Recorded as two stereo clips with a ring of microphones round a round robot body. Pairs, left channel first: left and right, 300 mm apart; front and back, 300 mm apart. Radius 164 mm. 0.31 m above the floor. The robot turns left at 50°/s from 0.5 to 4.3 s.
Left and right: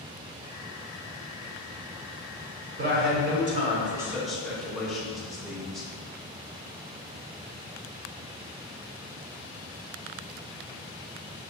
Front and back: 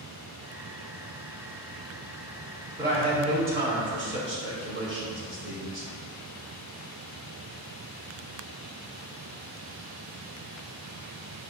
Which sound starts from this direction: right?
A man speaking, at 2.8 s.